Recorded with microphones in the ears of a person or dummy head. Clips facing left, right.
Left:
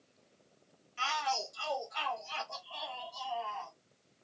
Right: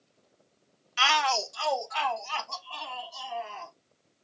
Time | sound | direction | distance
1.0 | a shout | 80° right | 0.5 m